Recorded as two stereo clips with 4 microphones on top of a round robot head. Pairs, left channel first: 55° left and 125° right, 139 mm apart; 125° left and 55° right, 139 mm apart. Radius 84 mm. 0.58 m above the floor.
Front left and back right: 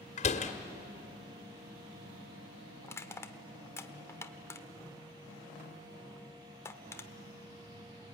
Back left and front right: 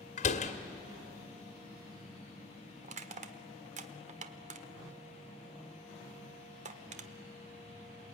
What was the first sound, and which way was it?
A door slam, 90° left.